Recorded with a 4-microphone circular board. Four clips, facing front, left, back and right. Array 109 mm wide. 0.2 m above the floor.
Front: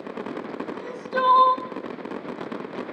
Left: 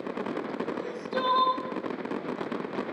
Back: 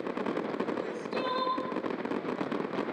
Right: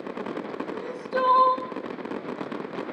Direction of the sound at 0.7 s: 35° right.